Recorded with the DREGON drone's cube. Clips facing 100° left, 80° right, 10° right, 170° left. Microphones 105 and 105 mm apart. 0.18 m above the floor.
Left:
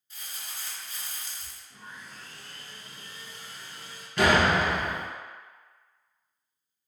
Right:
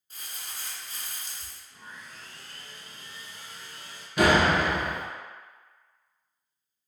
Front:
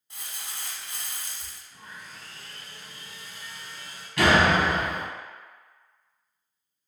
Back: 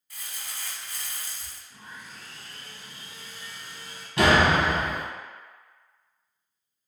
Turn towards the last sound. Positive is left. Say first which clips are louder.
# right 1 dB, even
turn(degrees=-150)